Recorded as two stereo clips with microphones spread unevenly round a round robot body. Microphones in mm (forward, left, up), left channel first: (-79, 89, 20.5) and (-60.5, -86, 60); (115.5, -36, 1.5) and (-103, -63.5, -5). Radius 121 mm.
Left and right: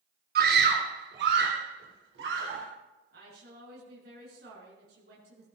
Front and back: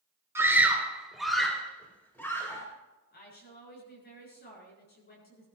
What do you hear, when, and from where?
0.3 s a scream: 100° right, 1.7 m; by 2.6 s 70° right, 2.5 m
3.1 s a woman speaking: 35° right, 7.5 m